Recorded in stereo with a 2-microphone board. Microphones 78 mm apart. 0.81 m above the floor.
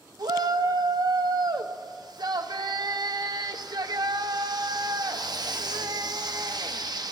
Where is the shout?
60° right (ahead or behind), 0.8 m.